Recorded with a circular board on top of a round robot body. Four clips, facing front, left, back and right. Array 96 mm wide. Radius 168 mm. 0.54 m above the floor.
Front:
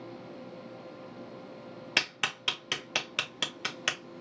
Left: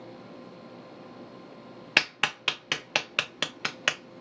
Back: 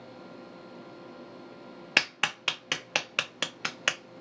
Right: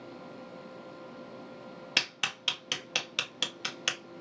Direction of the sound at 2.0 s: 125° left.